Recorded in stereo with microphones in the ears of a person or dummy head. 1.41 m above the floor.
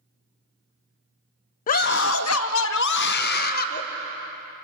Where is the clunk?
I don't hear a clunk.